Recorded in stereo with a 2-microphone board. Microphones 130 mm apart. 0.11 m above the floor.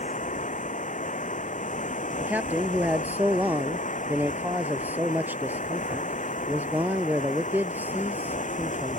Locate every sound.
0.0 s running water: 75° left (ahead or behind)
2.2 s a man speaking: 15° right (ahead or behind)